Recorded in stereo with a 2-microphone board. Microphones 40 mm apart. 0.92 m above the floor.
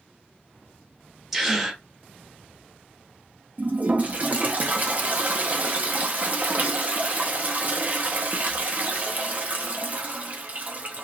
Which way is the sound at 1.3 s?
5° right (ahead or behind).